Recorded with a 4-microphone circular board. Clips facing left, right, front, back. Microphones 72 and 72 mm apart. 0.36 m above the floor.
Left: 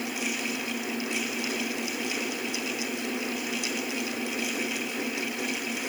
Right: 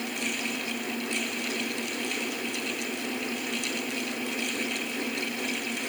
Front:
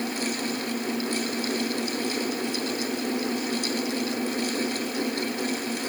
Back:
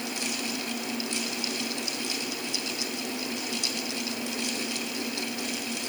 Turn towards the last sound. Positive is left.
No sound to turn to.